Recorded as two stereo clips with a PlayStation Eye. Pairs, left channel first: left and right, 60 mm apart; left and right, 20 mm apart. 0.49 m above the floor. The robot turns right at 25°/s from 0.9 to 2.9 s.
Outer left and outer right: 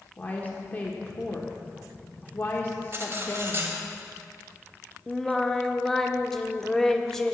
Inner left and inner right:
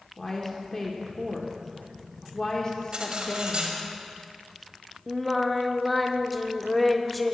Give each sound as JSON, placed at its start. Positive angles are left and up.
{"t": 0.2, "sound": "a woman speaking", "side_deg": 25, "distance_m": 1.1}
{"t": 2.9, "sound": "cutlery clinking", "side_deg": -40, "distance_m": 1.3}
{"t": 5.1, "sound": "singing", "side_deg": 5, "distance_m": 0.5}